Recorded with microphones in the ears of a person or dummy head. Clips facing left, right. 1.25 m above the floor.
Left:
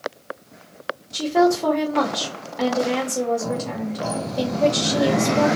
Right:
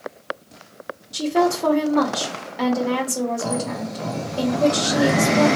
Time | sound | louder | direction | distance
1.1 | a woman speaking | left 2 dB | centre (ahead or behind) | 1.3 m